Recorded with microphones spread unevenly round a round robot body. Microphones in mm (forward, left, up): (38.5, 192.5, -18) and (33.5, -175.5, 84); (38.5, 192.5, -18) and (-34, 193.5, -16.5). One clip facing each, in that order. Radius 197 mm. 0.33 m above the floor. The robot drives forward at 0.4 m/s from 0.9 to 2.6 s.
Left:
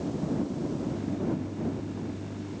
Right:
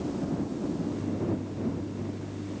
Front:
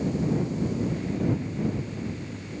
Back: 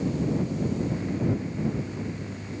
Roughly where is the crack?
No crack in this recording.